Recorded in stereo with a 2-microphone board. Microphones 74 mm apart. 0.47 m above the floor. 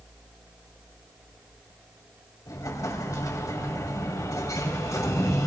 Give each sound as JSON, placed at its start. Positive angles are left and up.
{"t": 2.5, "sound": "an explosion", "side_deg": 60, "distance_m": 2.5}